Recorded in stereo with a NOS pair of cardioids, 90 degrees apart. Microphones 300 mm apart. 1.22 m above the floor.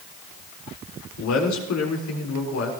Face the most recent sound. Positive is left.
turn(degrees=65)